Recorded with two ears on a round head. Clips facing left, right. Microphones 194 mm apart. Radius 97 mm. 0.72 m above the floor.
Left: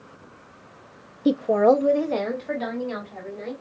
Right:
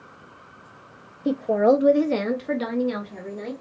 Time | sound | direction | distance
1.2 | a woman speaking | 20° left (ahead or behind) | 0.5 m